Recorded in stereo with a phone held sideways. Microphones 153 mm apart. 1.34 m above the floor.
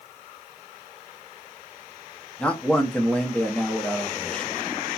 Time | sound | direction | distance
2.4 | a man speaking | 10° left (ahead or behind) | 0.6 m